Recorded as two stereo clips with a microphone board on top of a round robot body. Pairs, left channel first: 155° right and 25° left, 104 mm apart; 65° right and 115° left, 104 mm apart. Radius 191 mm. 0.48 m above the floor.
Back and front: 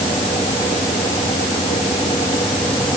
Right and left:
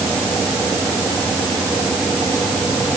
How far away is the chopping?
I don't hear chopping.